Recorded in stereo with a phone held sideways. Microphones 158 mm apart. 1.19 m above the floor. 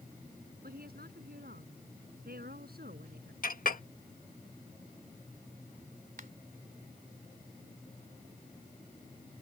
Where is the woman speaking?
75° right (ahead or behind); by 3.3 s 80° right.